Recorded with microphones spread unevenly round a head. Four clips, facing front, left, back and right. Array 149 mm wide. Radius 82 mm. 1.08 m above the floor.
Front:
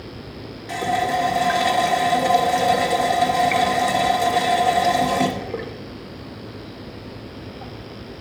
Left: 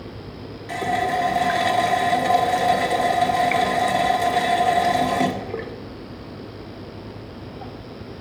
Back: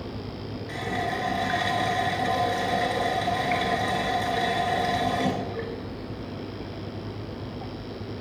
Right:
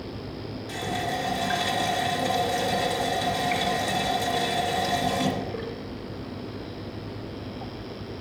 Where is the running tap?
50° left, 1.3 m.